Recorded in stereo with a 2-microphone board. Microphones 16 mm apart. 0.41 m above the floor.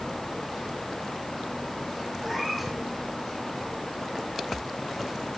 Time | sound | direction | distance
2.2 | a cat meowing | 5° right (ahead or behind) | 7.5 m